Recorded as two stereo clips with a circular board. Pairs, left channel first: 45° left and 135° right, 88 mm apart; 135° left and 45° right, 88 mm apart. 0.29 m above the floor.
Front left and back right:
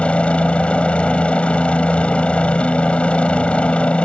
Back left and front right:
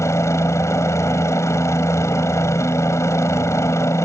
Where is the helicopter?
110° left.